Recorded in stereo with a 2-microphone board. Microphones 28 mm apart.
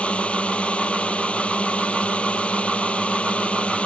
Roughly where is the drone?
Left.